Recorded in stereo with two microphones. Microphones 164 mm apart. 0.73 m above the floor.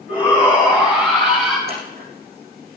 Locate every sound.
0.1 s a shout: 5° right (ahead or behind), 5.5 m; by 1.6 s centre (ahead or behind), 7.5 m
1.7 s scissors: 80° right, 7.5 m